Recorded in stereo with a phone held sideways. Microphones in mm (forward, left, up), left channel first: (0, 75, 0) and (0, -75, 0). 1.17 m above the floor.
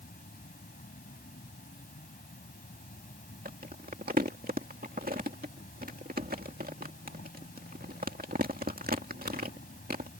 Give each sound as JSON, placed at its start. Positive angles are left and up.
{"t": 0.0, "sound": "an insect", "side_deg": 70}
{"t": 3.5, "sound": "crumpling", "side_deg": -80}